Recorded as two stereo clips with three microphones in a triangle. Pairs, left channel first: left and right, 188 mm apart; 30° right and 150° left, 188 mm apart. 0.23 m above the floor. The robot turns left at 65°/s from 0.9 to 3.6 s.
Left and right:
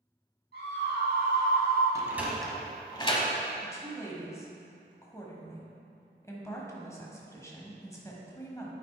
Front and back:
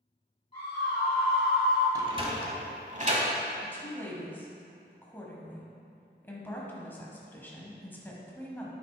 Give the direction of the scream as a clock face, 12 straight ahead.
3 o'clock.